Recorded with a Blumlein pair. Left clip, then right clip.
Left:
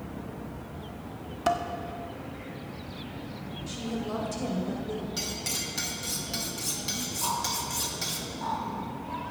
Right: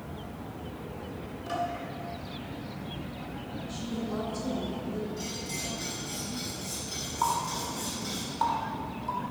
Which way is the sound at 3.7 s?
45° left.